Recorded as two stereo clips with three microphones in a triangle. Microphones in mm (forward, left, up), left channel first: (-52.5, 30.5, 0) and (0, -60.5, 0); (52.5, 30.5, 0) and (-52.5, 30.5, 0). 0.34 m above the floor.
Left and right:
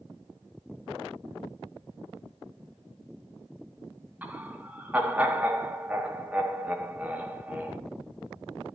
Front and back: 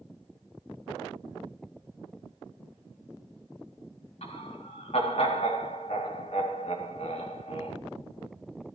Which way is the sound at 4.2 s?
15° left.